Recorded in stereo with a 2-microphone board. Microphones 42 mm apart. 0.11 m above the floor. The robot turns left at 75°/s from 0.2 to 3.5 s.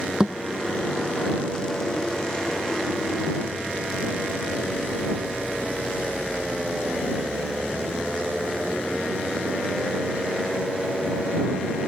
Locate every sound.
0.2 s a thud: 20° right (ahead or behind); by 0.4 s 5° right (ahead or behind)